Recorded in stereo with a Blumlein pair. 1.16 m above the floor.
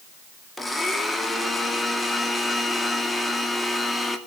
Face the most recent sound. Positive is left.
turn(degrees=5)